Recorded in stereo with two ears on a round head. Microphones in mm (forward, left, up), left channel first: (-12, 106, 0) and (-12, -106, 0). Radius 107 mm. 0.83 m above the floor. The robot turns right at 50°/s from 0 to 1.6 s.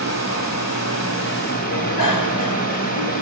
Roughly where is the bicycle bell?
Left.